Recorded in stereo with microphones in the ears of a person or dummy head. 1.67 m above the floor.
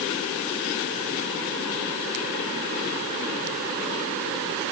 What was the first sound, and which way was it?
Only background noise.